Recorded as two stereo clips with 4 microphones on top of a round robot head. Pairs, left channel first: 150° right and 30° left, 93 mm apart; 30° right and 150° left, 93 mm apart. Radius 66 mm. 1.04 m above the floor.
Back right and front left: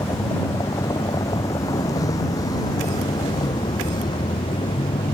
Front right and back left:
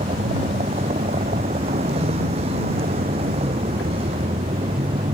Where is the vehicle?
150° left; by 5.1 s 170° left.